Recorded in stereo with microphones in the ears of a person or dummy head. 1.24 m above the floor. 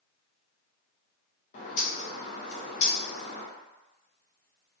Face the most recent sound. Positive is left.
turn(degrees=45)  # may be behind; listen again after turning